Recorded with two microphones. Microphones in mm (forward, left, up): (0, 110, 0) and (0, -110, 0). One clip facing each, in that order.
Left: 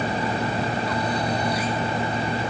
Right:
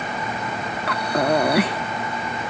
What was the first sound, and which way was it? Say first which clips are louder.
Breathing: right 4 dB; 75° right (ahead or behind).